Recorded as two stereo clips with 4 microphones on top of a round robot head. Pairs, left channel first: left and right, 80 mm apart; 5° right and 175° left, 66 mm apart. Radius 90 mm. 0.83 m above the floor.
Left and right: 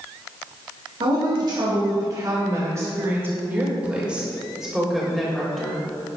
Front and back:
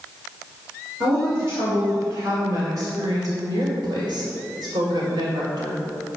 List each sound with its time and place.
1.0 s a woman speaking: 115° right, 2.5 m; by 5.8 s 175° left, 3.5 m